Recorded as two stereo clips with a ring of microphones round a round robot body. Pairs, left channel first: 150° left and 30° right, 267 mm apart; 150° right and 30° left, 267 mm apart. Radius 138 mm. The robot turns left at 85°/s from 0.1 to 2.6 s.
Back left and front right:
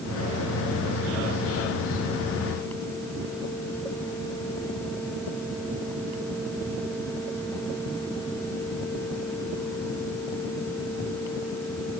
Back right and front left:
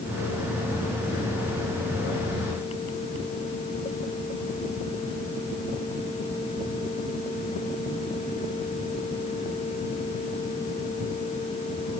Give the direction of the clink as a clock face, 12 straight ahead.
I don't hear a clink.